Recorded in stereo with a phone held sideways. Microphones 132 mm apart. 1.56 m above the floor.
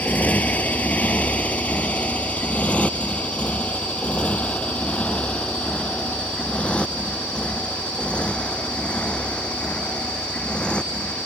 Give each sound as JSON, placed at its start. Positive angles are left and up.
{"t": 0.0, "sound": "a motorcycle", "side_deg": 10}